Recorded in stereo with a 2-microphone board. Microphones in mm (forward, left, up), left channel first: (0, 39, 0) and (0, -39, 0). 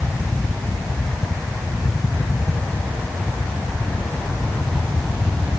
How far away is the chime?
I don't hear a chime.